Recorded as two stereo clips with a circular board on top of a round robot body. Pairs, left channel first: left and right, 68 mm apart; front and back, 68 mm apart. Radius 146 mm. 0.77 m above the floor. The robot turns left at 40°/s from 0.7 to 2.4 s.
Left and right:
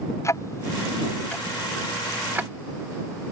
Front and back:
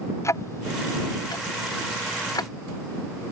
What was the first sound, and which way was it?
Ticking, 45° left.